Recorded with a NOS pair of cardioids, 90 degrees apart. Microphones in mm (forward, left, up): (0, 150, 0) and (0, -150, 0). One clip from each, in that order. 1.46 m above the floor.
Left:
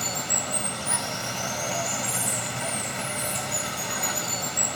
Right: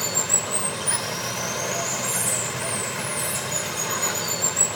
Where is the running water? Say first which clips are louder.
Right 3 dB; 25° right, 1.2 m.